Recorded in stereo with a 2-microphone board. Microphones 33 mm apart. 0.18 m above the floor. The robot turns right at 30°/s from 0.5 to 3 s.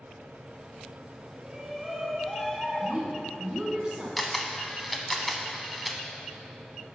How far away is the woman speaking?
About 1.8 m.